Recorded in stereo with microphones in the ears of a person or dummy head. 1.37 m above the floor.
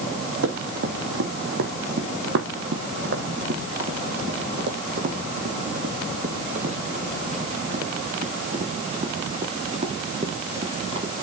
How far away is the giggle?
I don't hear a giggle.